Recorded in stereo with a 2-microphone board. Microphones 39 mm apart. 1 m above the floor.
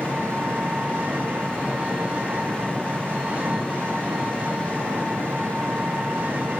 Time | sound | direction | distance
0.0 | an engine running | 45° right (ahead or behind) | 6.5 m